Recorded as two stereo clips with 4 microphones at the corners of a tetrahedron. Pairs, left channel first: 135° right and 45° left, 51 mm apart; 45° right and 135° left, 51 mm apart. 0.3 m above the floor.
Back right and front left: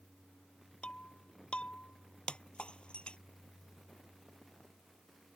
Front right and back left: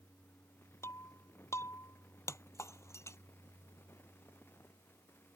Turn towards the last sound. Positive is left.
turn(degrees=-65)